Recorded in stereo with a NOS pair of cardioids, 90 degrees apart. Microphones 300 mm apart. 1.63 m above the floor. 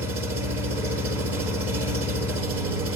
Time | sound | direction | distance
0.0 | an engine running | 50° right | 8.5 m